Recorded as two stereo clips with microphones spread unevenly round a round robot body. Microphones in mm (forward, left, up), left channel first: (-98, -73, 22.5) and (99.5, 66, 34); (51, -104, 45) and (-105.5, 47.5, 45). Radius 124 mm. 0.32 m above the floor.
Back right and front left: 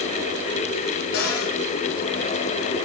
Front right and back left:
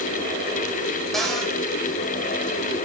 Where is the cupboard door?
135° right, 3 m.